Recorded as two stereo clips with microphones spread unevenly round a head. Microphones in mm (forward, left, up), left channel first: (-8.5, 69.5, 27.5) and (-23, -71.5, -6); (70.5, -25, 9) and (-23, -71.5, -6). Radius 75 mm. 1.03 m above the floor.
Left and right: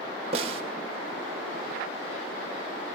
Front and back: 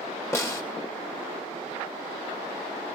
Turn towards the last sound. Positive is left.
turn(degrees=-40)